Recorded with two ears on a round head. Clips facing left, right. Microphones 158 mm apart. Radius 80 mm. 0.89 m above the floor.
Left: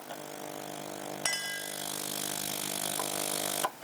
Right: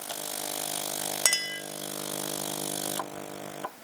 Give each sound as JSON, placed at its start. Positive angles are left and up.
{"t": 1.2, "sound": "a clink", "side_deg": -55, "distance_m": 0.7}